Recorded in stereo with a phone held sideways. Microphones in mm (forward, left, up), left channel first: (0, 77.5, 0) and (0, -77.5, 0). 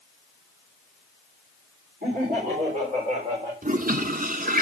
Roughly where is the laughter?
Right.